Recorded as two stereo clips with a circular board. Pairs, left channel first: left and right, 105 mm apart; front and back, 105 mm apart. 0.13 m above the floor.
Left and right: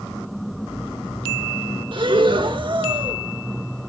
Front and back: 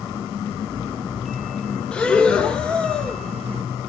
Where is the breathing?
80° right, 1.4 m.